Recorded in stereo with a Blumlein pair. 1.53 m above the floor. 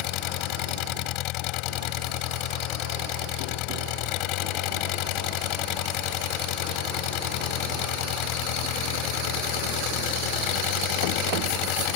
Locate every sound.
0.0 s an engine running: 40° left